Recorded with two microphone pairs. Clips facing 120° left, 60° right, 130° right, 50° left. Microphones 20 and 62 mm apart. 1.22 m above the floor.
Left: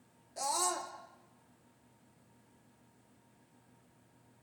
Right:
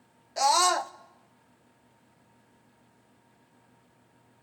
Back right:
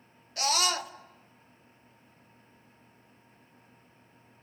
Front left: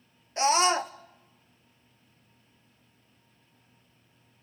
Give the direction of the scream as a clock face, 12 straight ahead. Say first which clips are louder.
Right 12 dB, front left 6 dB; 12 o'clock.